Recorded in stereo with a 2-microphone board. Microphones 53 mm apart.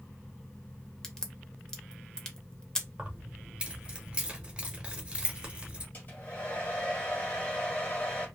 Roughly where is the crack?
Centre.